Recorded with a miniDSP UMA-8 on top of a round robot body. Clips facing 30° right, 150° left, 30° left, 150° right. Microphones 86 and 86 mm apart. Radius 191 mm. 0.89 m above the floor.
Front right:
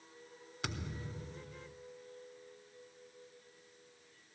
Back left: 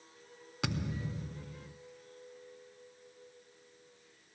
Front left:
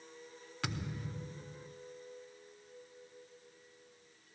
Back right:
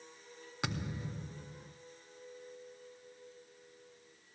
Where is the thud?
135° left, 0.5 m.